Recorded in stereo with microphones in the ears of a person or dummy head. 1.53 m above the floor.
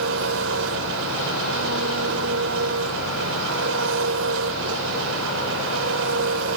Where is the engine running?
80° right.